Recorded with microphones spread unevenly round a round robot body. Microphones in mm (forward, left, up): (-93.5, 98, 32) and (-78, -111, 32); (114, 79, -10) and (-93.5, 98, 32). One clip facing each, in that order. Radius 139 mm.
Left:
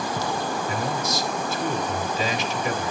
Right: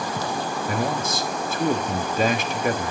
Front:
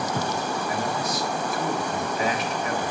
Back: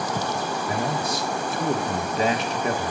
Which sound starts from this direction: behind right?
A man speaking, at 0.7 s.